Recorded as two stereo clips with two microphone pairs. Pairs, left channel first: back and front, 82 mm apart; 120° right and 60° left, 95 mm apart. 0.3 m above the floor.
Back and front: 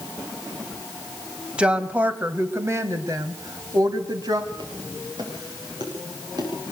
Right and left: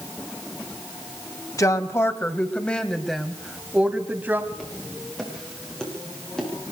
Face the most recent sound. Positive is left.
turn(degrees=-35)